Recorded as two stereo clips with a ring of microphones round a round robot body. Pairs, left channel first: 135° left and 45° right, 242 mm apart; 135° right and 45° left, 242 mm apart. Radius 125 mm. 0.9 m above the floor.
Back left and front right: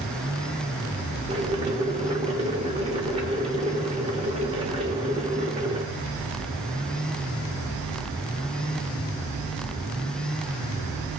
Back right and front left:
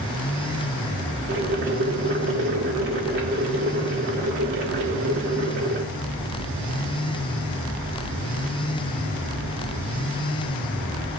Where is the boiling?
15° left, 1.9 m.